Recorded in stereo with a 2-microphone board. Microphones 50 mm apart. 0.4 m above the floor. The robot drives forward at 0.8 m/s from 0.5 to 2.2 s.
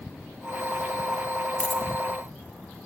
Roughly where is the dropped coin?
Centre.